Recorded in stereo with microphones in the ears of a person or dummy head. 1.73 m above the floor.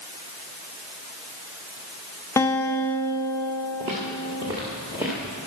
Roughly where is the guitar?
Centre.